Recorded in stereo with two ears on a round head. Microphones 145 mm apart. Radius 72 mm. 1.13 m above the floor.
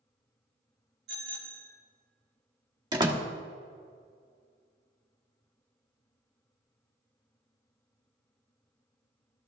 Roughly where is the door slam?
Right.